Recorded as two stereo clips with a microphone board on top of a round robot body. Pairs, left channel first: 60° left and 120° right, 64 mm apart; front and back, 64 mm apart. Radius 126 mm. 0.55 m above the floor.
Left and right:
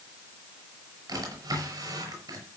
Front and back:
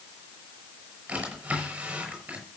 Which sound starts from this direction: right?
A drawer, at 1.1 s.